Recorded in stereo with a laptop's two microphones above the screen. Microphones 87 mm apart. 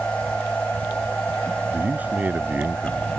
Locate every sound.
0.0 s a machine running: 15° left (ahead or behind)
1.7 s a man speaking: 20° right (ahead or behind)